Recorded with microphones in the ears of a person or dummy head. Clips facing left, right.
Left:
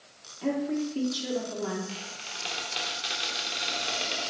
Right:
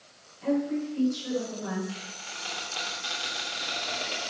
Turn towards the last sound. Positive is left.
turn(degrees=35)  # may be behind; listen again after turning